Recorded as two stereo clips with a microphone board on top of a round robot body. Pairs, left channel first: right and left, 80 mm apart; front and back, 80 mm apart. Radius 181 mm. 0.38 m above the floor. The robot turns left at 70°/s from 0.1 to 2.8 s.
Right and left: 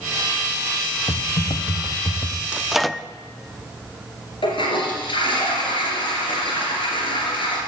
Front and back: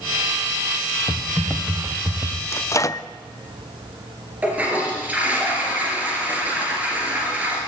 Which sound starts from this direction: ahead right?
Typing on a keyboard, at 1.1 s.